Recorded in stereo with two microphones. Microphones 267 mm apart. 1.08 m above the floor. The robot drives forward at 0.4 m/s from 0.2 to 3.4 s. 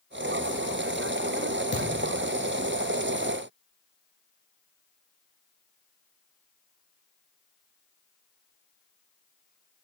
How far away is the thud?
About 0.5 m.